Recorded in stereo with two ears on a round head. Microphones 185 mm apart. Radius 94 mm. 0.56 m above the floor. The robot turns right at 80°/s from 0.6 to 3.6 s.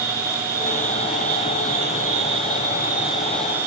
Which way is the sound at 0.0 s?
45° right.